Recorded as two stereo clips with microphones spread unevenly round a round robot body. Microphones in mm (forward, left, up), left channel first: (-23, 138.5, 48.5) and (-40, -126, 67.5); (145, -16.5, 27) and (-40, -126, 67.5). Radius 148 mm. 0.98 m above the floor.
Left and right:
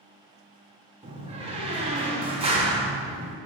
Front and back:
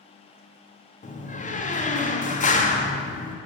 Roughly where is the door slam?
Ahead right.